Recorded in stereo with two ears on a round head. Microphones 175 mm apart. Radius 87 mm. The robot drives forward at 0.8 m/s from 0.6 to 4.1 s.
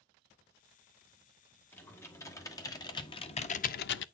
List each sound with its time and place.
1.7 s typing on a keyboard: 10° left (ahead or behind), 2.0 m; by 4.0 s 65° left (ahead or behind), 0.5 m